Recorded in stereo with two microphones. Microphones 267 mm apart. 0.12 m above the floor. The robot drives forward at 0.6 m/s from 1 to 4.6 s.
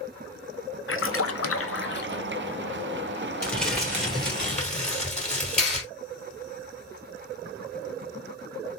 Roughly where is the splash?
Left.